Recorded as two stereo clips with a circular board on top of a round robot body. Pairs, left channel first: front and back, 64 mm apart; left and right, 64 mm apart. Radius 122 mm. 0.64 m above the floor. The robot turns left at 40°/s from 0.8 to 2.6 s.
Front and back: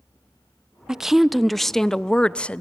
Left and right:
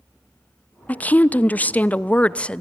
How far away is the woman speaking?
About 0.6 m.